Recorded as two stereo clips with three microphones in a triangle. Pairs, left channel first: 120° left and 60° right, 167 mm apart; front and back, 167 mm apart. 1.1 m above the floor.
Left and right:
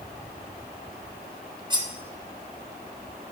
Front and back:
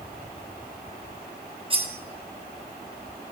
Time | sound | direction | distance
1.7 | cutlery clinking | 120° right | 0.9 m